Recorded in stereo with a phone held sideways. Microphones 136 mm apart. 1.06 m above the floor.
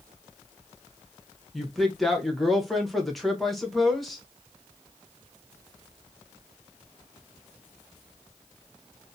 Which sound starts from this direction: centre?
A woman speaking, at 1.5 s.